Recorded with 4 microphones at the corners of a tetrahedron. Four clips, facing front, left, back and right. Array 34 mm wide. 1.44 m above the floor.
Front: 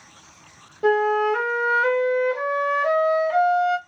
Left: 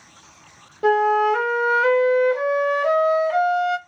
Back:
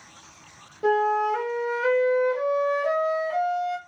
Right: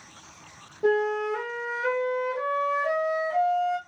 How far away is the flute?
About 0.6 m.